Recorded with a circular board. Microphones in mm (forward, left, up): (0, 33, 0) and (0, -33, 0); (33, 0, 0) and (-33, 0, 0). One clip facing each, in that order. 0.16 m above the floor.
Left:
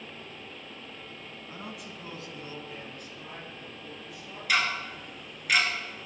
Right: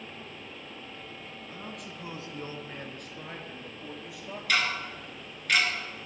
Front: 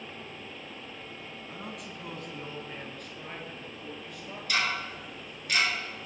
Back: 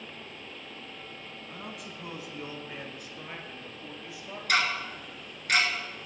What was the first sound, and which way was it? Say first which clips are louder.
A man speaking: left 1 dB, even; 85° left.